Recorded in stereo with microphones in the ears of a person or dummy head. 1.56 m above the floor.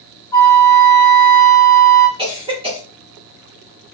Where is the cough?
30° right (ahead or behind), 3 m.